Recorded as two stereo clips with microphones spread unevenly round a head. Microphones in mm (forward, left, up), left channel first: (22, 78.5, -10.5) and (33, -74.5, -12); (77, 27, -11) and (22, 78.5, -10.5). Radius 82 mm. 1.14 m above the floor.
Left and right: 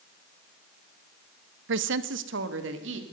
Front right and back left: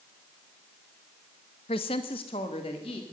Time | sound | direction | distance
1.7 | a woman speaking | 80° right | 0.6 m